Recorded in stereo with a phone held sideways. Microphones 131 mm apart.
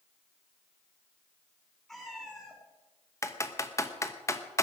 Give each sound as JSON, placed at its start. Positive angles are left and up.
{"t": 1.9, "sound": "a cat meowing", "side_deg": 5, "distance_m": 6.5}
{"t": 3.2, "sound": "typing on a keyboard", "side_deg": 25, "distance_m": 1.1}